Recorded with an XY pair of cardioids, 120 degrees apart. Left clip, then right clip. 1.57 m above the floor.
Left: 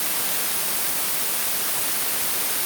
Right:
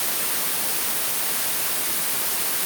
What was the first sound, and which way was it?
Only background noise.